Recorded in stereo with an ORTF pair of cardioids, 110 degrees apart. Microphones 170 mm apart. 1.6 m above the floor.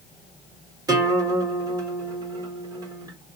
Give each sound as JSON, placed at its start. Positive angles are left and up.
{"t": 0.9, "sound": "a guitar", "azimuth_deg": -20, "distance_m": 1.5}